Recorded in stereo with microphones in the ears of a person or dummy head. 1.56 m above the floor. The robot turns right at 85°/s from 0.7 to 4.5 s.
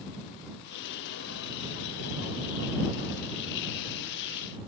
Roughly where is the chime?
No chime in this recording.